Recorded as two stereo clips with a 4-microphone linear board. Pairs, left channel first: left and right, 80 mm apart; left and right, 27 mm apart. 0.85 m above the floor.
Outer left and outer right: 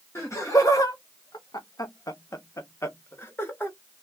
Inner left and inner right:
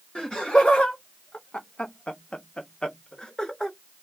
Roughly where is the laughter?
Left.